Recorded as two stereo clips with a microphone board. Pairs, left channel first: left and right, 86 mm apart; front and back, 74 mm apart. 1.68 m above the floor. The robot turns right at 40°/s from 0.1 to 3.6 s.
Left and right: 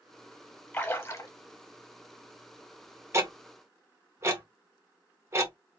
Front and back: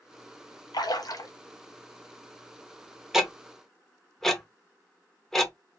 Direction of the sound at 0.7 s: 20° left.